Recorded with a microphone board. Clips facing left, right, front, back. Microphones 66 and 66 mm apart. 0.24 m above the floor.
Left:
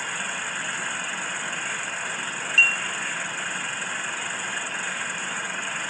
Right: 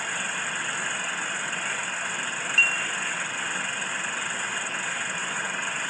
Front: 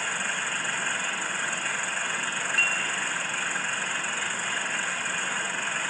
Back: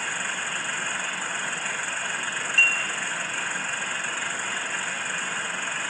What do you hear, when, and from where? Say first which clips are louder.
2.6 s dishes clattering: left 3 dB, back 5 dB; 35° right, 1.8 m